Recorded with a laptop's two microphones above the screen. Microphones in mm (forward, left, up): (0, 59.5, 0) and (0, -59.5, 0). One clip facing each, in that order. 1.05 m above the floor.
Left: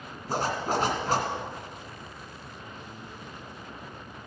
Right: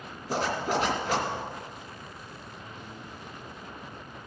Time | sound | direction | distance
0.3 | a zipper | 50° left (ahead or behind) | 2 m